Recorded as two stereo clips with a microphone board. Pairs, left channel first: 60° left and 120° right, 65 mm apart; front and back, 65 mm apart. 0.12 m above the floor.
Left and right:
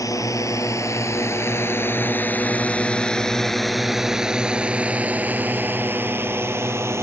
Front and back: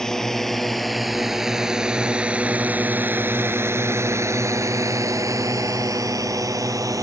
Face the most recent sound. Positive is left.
turn(degrees=-165)